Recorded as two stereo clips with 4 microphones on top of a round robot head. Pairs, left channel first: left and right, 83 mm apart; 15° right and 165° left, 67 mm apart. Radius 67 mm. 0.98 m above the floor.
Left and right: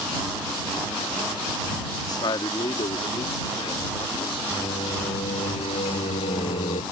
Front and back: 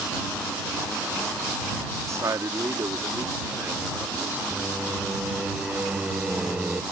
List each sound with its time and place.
2.1 s a man speaking: 125° left; by 4.4 s 105° left
4.5 s singing: 90° left